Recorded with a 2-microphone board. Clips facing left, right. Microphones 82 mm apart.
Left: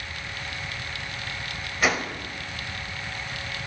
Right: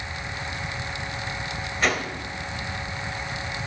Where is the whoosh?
5° left (ahead or behind), 0.7 m.